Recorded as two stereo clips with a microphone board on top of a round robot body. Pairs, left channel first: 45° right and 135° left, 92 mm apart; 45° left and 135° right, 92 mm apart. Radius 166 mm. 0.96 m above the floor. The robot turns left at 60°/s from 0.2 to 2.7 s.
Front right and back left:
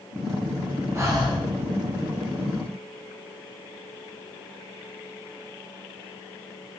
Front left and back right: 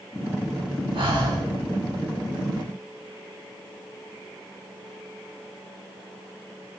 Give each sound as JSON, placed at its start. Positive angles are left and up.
{"t": 0.9, "sound": "breathing", "azimuth_deg": -160, "distance_m": 3.5}